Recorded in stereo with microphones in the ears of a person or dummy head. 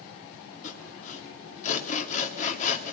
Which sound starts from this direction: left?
Sawing, at 0.6 s.